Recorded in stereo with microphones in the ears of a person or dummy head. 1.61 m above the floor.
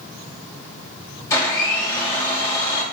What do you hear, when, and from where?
1.3 s a blender: 20° left (ahead or behind), 2.5 m